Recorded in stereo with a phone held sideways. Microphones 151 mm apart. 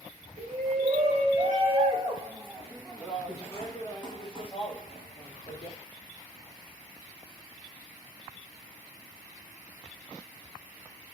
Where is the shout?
50° right (ahead or behind), 2.5 m; by 5.8 s 55° left (ahead or behind), 3 m.